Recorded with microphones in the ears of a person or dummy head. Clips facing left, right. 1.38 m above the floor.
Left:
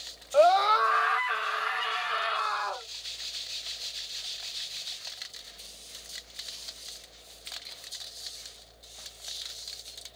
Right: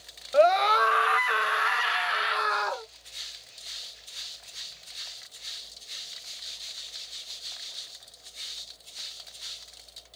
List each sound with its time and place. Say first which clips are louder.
0.3 s a scream: right 1 dB; 20° right (ahead or behind), 0.7 m; by 2.9 s 80° right, 1.4 m